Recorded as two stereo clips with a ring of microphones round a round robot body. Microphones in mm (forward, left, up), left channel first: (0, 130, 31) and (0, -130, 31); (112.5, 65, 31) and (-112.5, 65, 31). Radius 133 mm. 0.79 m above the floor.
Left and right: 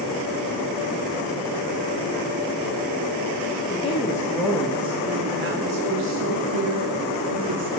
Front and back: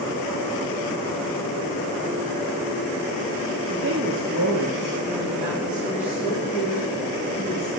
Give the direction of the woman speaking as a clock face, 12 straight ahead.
7 o'clock.